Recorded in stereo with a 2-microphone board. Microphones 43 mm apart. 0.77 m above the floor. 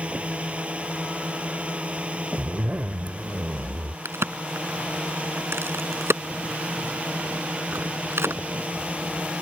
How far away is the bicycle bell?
No bicycle bell in this recording.